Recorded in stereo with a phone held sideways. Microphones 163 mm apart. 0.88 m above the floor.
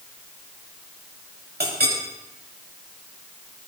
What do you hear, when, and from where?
1.6 s a clink: 85° right, 4 m